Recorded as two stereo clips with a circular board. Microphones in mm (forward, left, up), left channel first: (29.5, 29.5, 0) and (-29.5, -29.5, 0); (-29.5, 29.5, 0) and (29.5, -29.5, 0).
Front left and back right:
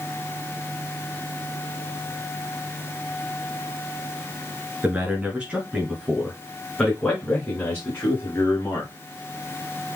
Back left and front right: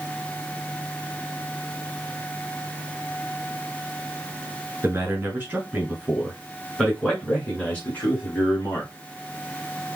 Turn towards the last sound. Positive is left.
turn(degrees=85)